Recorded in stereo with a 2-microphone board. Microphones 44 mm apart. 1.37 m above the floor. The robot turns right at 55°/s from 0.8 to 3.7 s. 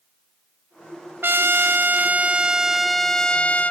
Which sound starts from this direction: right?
A trumpet, at 1.2 s.